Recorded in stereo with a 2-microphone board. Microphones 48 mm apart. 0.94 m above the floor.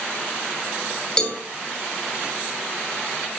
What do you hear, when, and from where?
1.2 s a cowbell: 15° left (ahead or behind), 2.5 m